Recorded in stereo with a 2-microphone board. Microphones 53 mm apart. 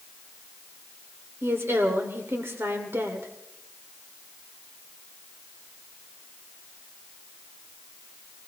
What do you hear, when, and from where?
1.4 s a woman speaking: 50° right (ahead or behind), 1.5 m